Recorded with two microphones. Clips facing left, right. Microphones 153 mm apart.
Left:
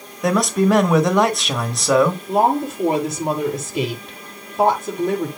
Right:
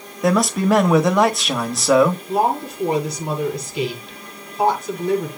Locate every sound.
0.2 s a man speaking: centre (ahead or behind), 1.2 m
2.3 s a woman speaking: 45° left (ahead or behind), 6.5 m